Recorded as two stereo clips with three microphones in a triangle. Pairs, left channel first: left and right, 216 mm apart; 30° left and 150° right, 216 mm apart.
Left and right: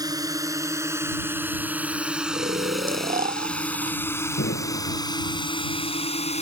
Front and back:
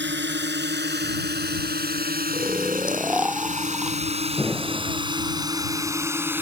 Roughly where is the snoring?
Ahead right.